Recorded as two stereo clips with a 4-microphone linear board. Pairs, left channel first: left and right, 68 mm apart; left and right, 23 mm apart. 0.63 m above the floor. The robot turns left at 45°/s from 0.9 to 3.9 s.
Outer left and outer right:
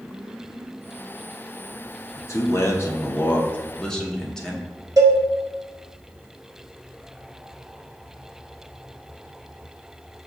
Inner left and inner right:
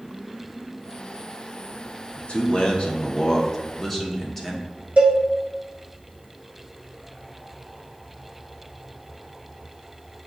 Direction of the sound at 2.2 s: 90° left.